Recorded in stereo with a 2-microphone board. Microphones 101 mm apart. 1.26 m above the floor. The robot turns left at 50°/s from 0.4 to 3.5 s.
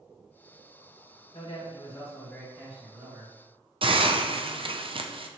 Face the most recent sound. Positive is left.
turn(degrees=-60)  # may be behind; listen again after turning